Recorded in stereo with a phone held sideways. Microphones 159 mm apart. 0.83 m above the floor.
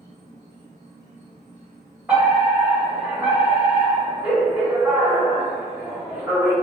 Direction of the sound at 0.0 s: 75° left (ahead or behind).